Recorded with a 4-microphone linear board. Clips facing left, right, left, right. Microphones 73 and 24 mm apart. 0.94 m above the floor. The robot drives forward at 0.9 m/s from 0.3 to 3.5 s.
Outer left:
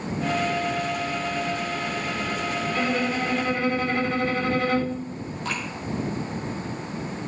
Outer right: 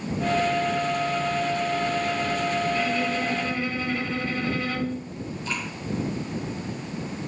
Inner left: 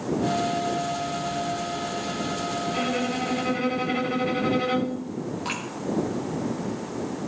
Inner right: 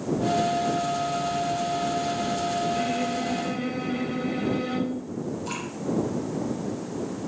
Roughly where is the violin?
Left.